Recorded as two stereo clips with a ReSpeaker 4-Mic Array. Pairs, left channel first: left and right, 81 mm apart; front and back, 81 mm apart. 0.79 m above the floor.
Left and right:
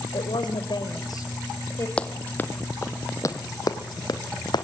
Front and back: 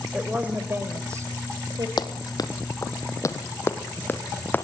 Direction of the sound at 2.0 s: 15° left.